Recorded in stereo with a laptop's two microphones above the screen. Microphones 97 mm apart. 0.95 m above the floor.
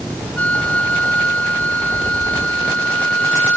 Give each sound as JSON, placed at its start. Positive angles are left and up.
{"t": 0.4, "sound": "a flute", "side_deg": 15}